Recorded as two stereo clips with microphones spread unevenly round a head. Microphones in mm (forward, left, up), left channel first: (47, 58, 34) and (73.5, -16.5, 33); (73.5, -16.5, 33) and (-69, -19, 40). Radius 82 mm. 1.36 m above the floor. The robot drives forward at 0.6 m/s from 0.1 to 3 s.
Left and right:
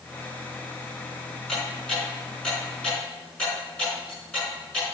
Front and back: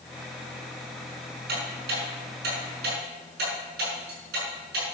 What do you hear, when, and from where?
1.5 s ticking: 165° right, 6 m